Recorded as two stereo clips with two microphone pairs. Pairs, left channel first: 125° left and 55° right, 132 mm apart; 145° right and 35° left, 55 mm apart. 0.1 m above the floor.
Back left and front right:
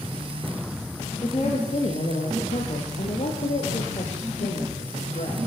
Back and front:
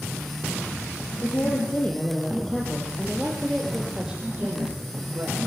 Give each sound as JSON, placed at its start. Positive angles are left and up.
{"t": 1.2, "sound": "a woman speaking", "azimuth_deg": 170, "distance_m": 4.0}